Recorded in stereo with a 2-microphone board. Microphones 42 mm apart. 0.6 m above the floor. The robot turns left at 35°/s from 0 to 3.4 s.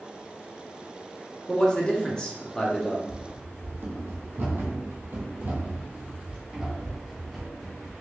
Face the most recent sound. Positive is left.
turn(degrees=0)  # may be behind; listen again after turning